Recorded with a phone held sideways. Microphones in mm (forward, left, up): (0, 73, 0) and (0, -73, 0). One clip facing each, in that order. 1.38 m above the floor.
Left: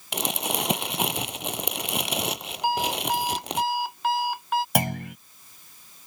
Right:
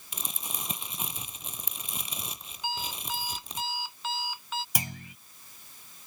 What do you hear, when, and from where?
0.1 s crumpling: 80° left
2.6 s an alarm clock: 65° left (ahead or behind)
4.8 s a clunk: 70° left (ahead or behind)